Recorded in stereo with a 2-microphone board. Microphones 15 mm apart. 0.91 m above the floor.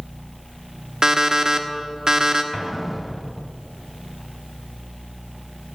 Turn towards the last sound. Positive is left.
turn(degrees=-10)  # may be behind; listen again after turning